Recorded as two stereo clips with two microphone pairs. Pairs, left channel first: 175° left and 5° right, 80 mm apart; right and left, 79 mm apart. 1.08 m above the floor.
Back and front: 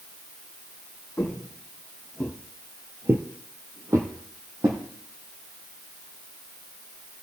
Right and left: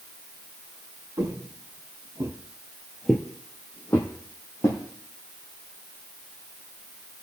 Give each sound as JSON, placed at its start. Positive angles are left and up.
{"t": 1.2, "sound": "footsteps", "azimuth_deg": 115, "distance_m": 2.5}